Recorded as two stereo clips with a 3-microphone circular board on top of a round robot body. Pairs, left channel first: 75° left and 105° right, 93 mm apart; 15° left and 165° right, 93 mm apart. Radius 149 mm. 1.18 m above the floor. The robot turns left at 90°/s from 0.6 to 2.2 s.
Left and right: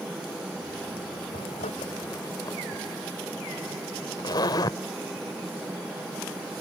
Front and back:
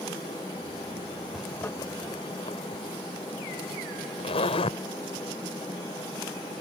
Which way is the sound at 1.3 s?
110° left.